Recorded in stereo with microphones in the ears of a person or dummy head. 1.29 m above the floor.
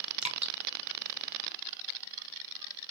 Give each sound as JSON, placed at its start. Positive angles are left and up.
{"t": 0.2, "sound": "dripping", "side_deg": -5, "distance_m": 0.9}